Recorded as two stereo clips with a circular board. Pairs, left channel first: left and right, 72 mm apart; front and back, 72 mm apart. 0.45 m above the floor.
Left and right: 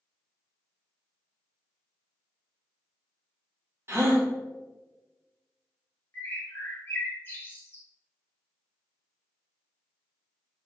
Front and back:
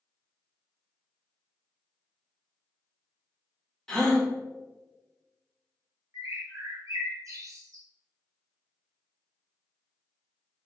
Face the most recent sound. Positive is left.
turn(degrees=145)